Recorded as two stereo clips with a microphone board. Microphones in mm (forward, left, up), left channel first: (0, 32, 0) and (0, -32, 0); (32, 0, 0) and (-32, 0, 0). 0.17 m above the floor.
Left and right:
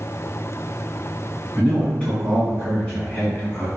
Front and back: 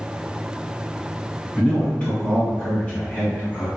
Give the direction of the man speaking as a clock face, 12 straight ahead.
11 o'clock.